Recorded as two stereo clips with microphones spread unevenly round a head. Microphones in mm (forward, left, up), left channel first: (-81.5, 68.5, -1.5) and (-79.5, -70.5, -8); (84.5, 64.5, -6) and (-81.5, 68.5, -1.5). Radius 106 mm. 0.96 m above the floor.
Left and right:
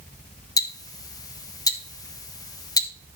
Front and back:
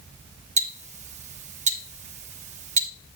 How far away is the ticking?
About 1.2 m.